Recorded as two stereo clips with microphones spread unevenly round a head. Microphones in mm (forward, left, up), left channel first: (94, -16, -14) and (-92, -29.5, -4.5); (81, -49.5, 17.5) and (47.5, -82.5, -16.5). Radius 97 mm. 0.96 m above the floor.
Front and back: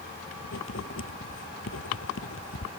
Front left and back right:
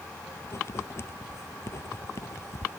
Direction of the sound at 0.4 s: 35° left.